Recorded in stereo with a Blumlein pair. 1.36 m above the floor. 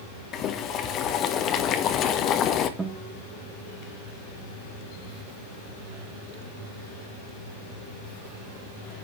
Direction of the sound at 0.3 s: 30° left.